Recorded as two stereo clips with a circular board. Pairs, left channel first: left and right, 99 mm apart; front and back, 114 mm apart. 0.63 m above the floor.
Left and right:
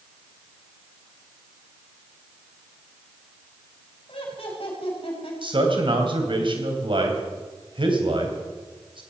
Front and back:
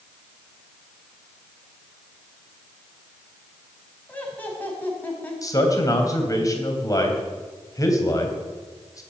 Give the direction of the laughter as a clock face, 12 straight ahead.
10 o'clock.